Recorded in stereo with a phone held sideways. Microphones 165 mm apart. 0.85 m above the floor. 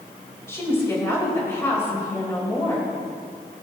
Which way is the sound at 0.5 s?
15° left (ahead or behind).